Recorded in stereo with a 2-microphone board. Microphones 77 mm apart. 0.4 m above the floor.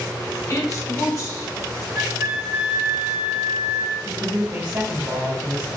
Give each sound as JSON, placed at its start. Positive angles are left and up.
{"t": 0.5, "sound": "a woman speaking", "side_deg": 45, "distance_m": 1.6}
{"t": 1.9, "sound": "a flute", "side_deg": -35, "distance_m": 1.2}
{"t": 4.0, "sound": "a man speaking", "side_deg": -40, "distance_m": 1.3}